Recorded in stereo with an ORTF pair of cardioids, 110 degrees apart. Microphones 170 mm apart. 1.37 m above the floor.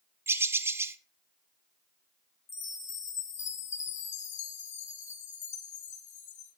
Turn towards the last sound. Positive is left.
turn(degrees=45)